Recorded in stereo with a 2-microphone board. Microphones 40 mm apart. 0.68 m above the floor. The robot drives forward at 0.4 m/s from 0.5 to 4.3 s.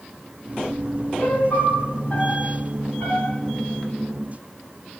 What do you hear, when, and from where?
1.2 s a piano: 50° left (ahead or behind), 2.0 m; by 3.4 s 35° left (ahead or behind), 2.5 m